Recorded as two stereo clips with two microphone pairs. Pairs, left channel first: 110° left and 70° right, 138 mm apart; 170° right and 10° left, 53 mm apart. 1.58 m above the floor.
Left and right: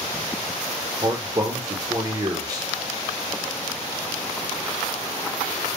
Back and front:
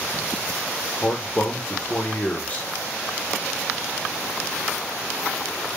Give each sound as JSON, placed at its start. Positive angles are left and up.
{"t": 1.0, "sound": "a man speaking", "azimuth_deg": -120, "distance_m": 0.6}